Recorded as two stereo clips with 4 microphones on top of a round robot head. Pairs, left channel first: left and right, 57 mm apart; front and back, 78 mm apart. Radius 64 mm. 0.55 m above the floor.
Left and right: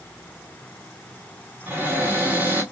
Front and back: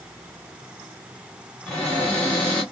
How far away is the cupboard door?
About 1.3 m.